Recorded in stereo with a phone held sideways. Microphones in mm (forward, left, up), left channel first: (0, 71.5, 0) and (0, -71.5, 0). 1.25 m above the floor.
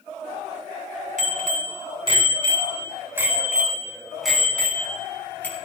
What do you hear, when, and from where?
1.2 s a bicycle bell: 60° right (ahead or behind), 3.5 m; by 5.7 s 15° left (ahead or behind), 6 m